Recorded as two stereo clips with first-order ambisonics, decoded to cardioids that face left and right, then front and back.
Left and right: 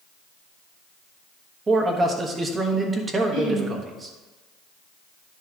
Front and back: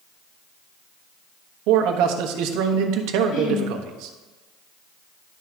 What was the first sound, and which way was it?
A man speaking, 165° right.